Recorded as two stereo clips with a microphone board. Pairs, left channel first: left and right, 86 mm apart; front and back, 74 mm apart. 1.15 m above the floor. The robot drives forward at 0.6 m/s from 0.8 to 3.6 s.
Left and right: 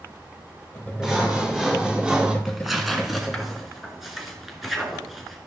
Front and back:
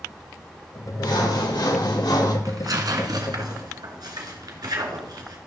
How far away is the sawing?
About 2.5 m.